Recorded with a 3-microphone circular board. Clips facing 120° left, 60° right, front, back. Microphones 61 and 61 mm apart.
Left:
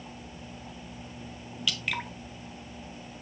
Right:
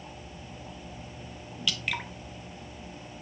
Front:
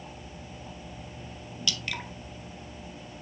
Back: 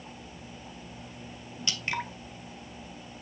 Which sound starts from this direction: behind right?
Dripping, at 1.7 s.